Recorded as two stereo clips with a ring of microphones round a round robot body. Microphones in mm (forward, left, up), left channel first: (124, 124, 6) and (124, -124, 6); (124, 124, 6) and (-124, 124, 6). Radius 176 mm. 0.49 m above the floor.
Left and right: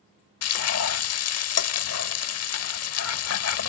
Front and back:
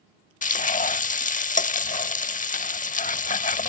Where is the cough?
I don't hear a cough.